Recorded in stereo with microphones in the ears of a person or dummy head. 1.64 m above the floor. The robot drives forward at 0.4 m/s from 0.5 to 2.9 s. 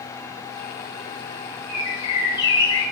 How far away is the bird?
About 1.3 m.